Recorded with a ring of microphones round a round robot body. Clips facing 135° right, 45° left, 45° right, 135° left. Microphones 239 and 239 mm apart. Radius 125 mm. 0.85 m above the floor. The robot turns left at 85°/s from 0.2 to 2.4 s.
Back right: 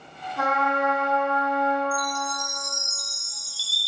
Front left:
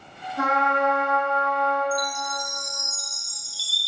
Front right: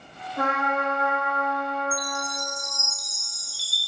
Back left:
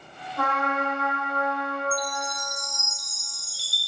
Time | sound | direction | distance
0.4 | a trumpet | 110° right | 1.8 m
1.9 | a chime | 25° right | 0.7 m